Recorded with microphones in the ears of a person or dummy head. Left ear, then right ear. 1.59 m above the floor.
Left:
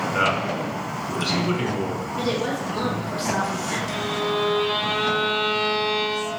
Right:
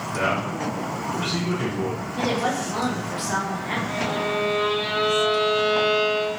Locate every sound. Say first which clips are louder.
0.1 s a man speaking: left 1 dB; 50° left (ahead or behind), 1.3 m
2.2 s a woman speaking: right 2 dB; 30° right (ahead or behind), 0.8 m
3.9 s a violin: right 1 dB; 35° left (ahead or behind), 1.2 m